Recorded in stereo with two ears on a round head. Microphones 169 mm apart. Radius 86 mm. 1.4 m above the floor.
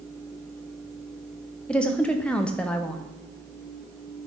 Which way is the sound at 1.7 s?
5° left (ahead or behind).